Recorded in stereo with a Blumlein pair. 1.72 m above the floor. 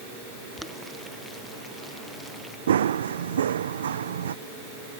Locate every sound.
0.6 s boiling: 5° left
2.7 s running footsteps: 65° right